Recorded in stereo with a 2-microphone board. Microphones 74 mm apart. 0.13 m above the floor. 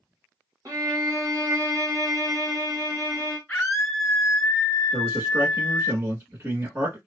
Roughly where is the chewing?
I don't hear chewing.